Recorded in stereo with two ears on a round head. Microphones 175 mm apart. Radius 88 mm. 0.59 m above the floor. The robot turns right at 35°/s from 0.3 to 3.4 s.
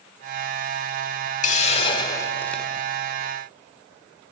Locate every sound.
1.4 s a hiss: 135° left, 1.6 m; by 2.7 s straight behind, 1.6 m